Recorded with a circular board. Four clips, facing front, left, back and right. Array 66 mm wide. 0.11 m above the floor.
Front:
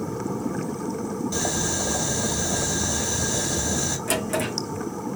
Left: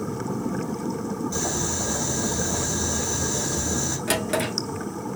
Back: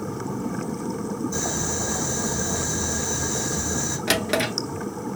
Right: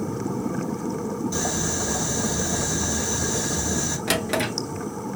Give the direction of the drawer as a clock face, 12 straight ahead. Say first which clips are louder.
Even, back 3 dB; 5 o'clock.